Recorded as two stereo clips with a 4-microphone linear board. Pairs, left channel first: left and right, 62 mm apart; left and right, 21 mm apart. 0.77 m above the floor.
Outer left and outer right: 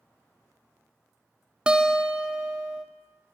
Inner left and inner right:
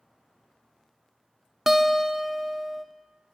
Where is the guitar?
15° right (ahead or behind), 0.6 m.